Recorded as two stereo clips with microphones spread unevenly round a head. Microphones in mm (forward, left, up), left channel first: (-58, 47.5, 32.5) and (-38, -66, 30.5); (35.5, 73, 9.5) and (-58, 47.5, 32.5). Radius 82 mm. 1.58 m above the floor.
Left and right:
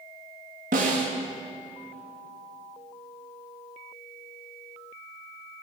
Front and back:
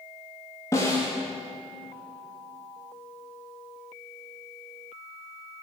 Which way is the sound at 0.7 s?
60° right.